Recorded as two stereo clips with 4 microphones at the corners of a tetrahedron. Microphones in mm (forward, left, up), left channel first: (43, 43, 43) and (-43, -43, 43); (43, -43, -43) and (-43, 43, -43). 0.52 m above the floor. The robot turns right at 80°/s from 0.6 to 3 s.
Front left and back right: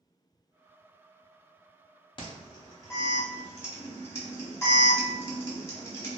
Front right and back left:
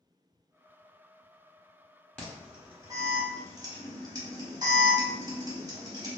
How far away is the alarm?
About 0.9 m.